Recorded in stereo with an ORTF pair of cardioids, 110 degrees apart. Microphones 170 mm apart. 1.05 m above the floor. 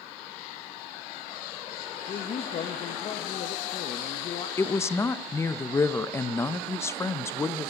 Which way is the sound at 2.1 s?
45° left.